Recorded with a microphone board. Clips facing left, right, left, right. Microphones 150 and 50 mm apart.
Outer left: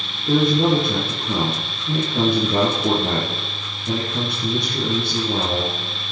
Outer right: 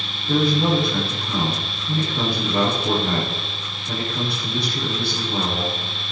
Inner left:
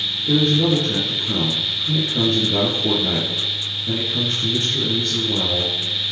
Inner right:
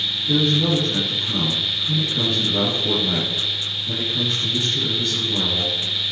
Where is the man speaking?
45° left (ahead or behind), 4 m.